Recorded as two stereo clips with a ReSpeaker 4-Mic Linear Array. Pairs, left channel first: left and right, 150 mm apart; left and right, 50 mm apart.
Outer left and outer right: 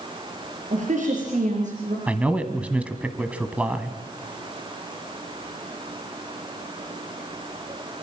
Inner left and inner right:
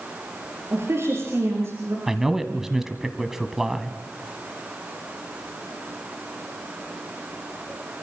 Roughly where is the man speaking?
Centre.